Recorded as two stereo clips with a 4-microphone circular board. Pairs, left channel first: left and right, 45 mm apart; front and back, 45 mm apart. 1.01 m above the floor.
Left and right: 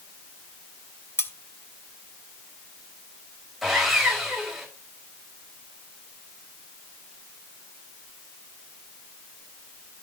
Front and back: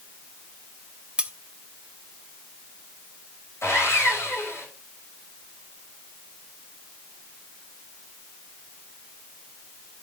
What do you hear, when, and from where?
1.2 s cutlery clinking: 110° left, 0.8 m
3.6 s sawing: straight ahead, 5 m